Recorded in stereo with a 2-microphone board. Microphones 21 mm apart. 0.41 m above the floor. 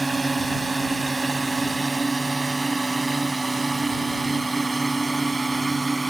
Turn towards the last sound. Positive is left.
turn(degrees=5)  # may be behind; listen again after turning